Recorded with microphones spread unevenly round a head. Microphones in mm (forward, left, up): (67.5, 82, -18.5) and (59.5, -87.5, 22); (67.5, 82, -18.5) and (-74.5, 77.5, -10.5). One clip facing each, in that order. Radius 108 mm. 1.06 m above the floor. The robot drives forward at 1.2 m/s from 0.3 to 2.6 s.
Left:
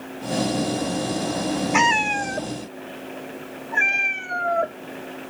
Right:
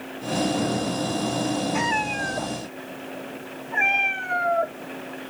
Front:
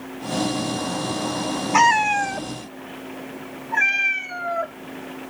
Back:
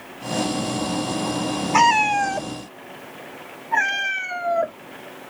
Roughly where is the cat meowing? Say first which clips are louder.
Left 3 dB, even; left.